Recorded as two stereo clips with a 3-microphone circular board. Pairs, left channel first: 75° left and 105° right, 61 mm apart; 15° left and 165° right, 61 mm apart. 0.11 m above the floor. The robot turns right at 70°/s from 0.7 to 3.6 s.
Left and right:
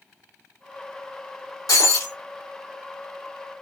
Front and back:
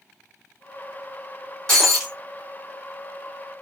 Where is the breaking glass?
95° left, 2.5 m; by 2.1 s 125° left, 2.5 m.